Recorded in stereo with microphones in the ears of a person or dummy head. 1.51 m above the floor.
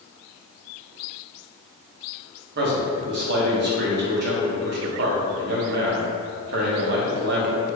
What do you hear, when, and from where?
2.5 s a man speaking: 50° right (ahead or behind), 0.6 m